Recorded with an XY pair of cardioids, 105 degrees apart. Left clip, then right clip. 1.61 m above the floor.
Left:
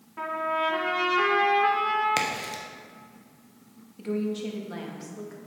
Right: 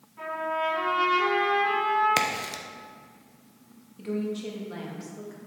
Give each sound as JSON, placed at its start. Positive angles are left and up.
{"t": 0.2, "sound": "a trumpet", "azimuth_deg": 70, "distance_m": 2.5}
{"t": 2.2, "sound": "a crack", "azimuth_deg": -20, "distance_m": 1.0}
{"t": 4.0, "sound": "a woman speaking", "azimuth_deg": 15, "distance_m": 1.7}